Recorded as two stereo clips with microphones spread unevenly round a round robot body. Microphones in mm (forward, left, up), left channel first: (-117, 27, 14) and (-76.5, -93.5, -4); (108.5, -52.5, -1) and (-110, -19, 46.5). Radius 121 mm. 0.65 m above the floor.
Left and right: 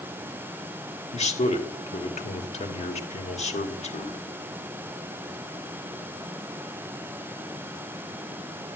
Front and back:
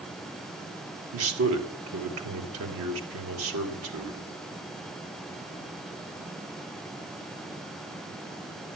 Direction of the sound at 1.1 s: 140° left.